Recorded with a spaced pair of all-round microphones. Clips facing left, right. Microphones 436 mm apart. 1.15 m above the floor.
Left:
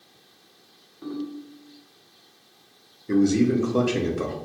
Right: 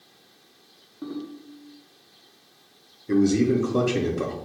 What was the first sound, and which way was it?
A ringtone, 60° right (ahead or behind).